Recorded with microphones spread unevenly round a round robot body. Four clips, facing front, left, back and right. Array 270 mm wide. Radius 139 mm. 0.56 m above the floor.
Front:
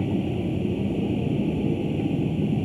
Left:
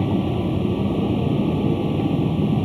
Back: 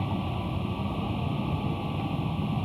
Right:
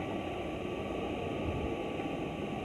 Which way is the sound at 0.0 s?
80° left.